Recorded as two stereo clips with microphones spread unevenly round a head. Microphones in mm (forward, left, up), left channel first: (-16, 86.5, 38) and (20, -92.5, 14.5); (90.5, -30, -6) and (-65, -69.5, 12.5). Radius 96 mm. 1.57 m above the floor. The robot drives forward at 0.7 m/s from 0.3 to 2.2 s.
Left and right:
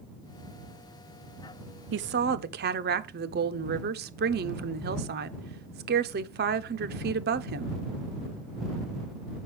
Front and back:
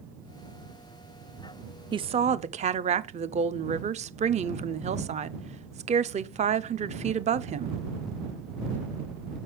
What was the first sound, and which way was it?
A woman speaking, 100° right.